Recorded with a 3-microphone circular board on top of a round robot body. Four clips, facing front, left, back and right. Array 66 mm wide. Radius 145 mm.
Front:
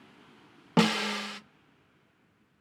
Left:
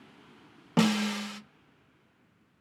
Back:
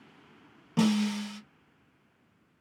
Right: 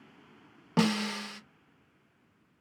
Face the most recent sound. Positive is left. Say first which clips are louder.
# left 2 dB, even
turn(degrees=0)